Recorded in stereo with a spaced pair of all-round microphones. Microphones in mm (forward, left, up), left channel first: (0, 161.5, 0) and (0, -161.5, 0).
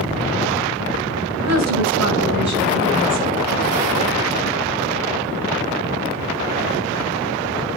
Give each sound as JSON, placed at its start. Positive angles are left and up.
{"t": 1.4, "sound": "a woman speaking", "side_deg": -55, "distance_m": 6.5}